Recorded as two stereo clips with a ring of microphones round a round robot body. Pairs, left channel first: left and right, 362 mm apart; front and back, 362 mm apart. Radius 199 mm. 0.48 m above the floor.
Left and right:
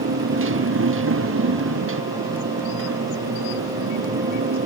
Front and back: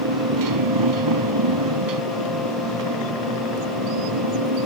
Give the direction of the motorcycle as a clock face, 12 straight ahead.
5 o'clock.